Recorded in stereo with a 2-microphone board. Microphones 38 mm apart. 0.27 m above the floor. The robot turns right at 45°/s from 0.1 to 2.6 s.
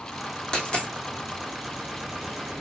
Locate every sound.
0.5 s a dropped coin: 20° left (ahead or behind), 1.4 m; by 0.9 s 35° left (ahead or behind), 1.4 m